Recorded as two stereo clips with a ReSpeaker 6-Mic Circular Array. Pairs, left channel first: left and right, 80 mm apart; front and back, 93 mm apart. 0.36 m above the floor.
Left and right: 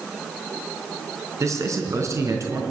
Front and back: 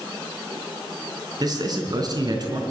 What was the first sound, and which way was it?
A man speaking, 140° right.